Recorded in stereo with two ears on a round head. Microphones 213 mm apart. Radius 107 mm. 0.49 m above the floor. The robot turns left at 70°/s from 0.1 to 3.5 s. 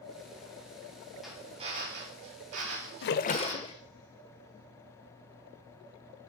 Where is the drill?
Straight ahead, 4 m; by 3.8 s 160° right, 4 m.